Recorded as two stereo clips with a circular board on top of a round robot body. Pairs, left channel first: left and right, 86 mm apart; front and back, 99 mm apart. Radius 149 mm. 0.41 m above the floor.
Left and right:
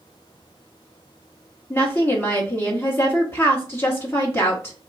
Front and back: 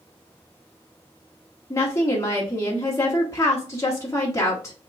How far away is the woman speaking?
About 1.4 m.